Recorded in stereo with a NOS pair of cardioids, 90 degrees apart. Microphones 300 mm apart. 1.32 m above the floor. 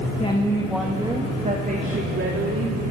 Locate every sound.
0.2 s a woman speaking: 20° left, 2.5 m; by 2.8 s 50° right, 4 m